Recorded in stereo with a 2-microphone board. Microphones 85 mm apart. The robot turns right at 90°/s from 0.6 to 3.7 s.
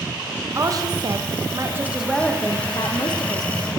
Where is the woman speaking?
135° right, 0.8 m; by 3.7 s 140° left, 0.8 m.